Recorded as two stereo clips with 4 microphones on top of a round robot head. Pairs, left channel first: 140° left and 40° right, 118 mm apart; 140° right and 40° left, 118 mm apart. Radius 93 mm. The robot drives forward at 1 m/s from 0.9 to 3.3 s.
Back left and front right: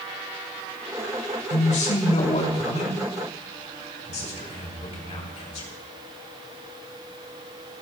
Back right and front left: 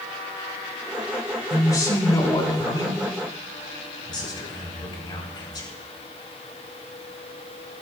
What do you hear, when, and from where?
1.5 s a man speaking: 160° left, 4 m; by 5.7 s 165° left, 5.5 m